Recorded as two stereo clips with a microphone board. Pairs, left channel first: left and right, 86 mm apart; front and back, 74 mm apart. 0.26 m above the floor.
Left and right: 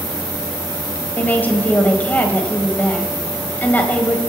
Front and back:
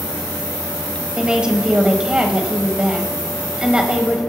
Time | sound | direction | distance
1.2 | a woman speaking | 120° left | 1.5 m